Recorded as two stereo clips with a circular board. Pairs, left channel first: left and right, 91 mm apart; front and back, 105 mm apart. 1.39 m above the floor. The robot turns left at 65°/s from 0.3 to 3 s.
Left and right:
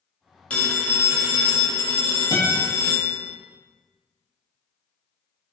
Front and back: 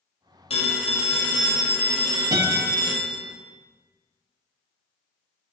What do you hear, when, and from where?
0.5 s a phone ringing: 15° left, 0.6 m; by 3.3 s 150° right, 0.6 m
2.3 s a guitar: 130° left, 0.7 m; by 2.6 s 115° left, 0.7 m